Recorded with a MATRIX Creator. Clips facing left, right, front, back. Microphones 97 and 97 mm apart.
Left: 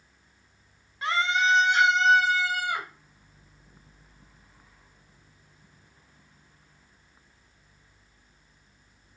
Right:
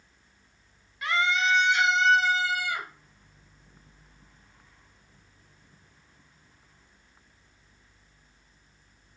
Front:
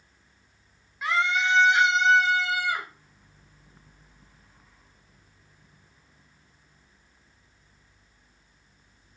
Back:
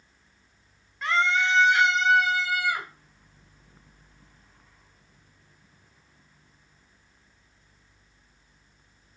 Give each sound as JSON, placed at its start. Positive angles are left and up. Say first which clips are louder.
{"t": 1.0, "sound": "a scream", "louder": "left 1 dB, back 1 dB", "azimuth_deg": 75, "distance_m": 1.2}